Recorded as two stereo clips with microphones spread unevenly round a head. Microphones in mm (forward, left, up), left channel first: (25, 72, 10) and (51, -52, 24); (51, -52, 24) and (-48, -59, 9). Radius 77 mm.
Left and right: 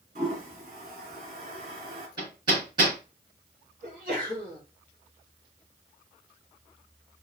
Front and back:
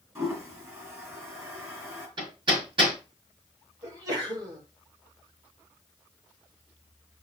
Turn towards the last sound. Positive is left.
turn(degrees=-120)